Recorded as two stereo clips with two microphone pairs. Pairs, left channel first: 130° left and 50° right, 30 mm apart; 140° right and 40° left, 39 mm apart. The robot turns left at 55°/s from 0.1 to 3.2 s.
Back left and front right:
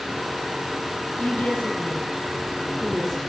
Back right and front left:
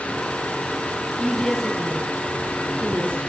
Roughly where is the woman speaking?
Behind left.